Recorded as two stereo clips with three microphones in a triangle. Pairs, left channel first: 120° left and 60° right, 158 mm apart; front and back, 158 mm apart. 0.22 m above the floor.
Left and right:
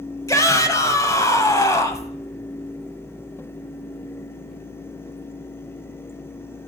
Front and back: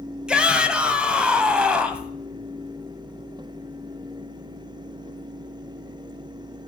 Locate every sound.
0.3 s a shout: 110° left, 1.1 m